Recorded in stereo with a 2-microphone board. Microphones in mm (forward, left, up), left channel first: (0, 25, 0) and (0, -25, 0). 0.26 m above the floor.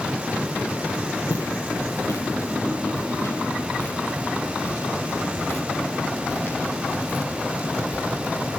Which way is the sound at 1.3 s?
85° left.